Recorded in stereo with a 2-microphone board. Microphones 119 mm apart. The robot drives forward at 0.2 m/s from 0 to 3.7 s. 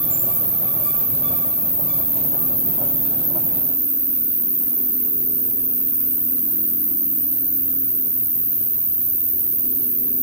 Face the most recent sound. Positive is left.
turn(degrees=70)  # may be behind; listen again after turning